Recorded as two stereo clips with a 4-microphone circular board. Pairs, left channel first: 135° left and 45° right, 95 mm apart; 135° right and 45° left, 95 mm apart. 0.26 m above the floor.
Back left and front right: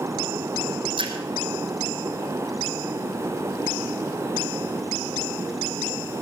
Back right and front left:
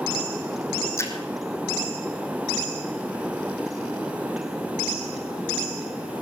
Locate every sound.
1.0 s a splash: 75° right, 3 m